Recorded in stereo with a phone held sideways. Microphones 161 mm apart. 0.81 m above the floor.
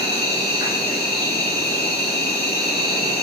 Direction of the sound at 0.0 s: 75° left (ahead or behind).